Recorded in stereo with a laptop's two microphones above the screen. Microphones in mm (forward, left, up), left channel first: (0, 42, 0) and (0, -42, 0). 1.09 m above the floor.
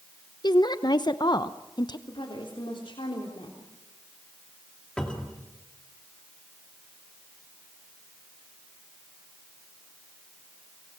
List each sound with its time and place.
0.4 s a woman speaking: 60° left (ahead or behind), 0.9 m
2.1 s a woman speaking: 80° left, 3.5 m
5.0 s a cupboard door: 10° left (ahead or behind), 2.5 m